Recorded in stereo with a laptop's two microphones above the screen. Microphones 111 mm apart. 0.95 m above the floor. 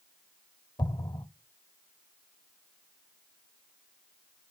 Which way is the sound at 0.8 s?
40° left (ahead or behind).